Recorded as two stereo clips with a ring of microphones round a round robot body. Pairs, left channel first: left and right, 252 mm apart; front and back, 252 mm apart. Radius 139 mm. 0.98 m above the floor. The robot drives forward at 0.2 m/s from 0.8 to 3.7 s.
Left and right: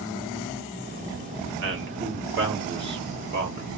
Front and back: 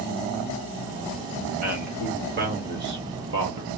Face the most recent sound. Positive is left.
turn(degrees=-140)